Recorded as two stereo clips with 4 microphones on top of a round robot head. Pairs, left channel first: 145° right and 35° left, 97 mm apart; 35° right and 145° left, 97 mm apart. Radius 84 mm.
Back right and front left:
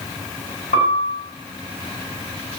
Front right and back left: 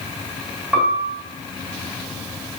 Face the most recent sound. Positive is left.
turn(degrees=-135)